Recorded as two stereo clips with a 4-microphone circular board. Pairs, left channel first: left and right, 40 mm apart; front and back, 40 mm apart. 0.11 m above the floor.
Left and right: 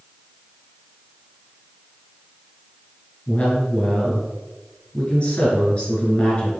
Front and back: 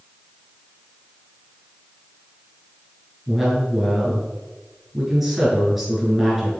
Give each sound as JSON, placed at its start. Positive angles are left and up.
{"t": 3.3, "sound": "a woman speaking", "azimuth_deg": 95, "distance_m": 1.7}